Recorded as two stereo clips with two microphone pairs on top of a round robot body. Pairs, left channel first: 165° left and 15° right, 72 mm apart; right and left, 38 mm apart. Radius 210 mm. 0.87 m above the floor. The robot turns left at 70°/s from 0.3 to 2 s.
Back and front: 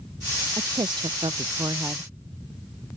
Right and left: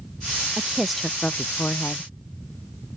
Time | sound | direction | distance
0.6 | a woman speaking | 20° left | ?